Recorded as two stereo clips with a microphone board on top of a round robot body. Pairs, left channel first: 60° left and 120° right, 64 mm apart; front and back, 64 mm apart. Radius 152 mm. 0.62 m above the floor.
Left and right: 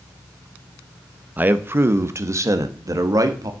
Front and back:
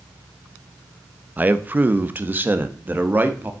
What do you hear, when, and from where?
1.4 s a man speaking: 150° right, 1.0 m; by 3.5 s 120° right, 1.8 m